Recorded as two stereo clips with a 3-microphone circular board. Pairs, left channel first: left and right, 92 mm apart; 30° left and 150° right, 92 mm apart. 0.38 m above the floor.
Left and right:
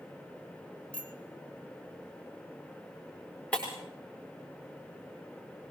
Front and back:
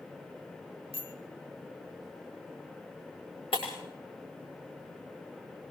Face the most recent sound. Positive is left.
turn(degrees=10)